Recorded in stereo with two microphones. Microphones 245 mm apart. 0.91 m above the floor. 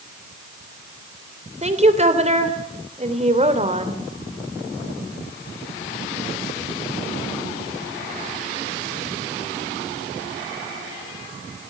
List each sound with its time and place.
1.6 s a woman speaking: 25° right (ahead or behind), 3 m